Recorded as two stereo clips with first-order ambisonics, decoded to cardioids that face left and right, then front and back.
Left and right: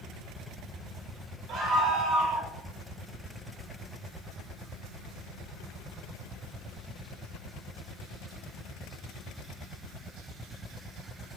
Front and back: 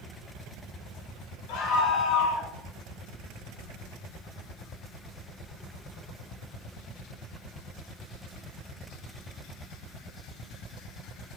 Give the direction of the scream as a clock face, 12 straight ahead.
1 o'clock.